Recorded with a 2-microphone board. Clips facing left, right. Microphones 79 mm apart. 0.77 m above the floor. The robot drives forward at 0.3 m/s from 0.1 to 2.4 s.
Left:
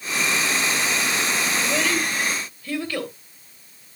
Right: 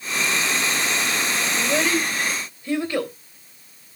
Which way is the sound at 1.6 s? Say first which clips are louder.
Right 4 dB; 25° right (ahead or behind).